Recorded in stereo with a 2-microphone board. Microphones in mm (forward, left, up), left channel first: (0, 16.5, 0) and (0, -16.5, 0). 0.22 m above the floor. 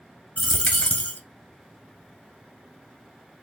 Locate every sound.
0.4 s a dropped coin: 50° left (ahead or behind), 0.7 m